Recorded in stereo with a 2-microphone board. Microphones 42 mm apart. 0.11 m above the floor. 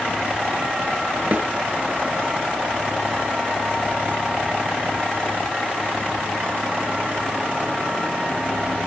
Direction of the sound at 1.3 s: 40° right (ahead or behind).